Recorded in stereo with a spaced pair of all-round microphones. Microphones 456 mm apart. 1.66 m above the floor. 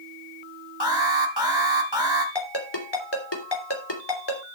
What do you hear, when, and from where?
0.8 s an alarm: 60° left (ahead or behind), 2.0 m
2.4 s a ringtone: 65° left (ahead or behind), 3 m